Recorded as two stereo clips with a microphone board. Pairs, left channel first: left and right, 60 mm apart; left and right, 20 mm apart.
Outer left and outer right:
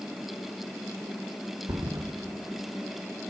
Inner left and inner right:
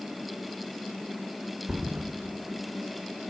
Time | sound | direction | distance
1.7 | a thud | 80° right | 2.5 m